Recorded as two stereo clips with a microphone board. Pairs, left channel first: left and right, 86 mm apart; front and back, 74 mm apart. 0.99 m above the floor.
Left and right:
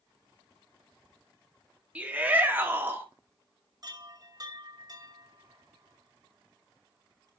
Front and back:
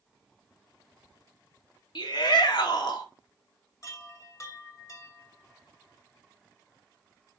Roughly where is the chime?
Ahead right.